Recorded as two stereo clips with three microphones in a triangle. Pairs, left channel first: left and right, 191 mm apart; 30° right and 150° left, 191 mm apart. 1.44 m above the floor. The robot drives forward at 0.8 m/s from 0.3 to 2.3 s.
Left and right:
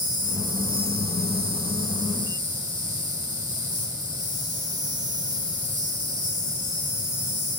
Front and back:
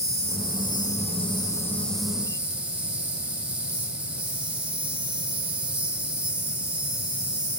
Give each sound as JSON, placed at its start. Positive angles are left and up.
{"t": 0.0, "sound": "an insect", "azimuth_deg": -50, "distance_m": 1.5}